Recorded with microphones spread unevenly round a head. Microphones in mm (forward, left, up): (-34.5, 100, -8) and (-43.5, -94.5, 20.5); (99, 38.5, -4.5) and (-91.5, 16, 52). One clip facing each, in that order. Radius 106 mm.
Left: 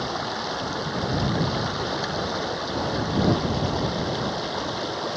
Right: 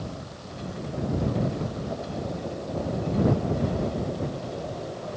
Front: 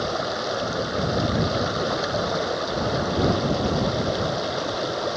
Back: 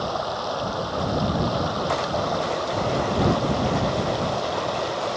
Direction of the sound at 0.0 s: 70° left.